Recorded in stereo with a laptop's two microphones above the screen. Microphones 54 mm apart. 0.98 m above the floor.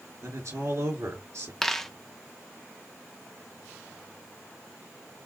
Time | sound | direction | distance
0.2 | a man speaking | 70° right (ahead or behind) | 3 m
1.6 | a dropped coin | 5° left (ahead or behind) | 0.6 m